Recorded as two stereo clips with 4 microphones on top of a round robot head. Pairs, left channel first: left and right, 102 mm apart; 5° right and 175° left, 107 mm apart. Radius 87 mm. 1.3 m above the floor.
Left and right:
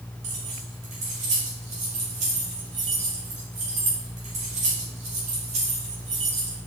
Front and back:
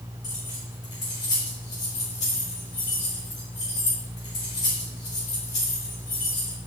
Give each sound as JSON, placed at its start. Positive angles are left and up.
{"t": 0.2, "sound": "keys jangling", "azimuth_deg": -70, "distance_m": 2.5}